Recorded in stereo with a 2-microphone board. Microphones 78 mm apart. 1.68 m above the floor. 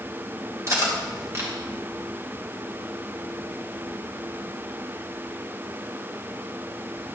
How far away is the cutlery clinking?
About 2 m.